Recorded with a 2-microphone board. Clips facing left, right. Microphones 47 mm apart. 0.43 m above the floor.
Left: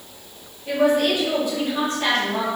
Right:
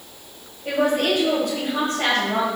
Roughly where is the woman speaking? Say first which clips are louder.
Left 2 dB; right.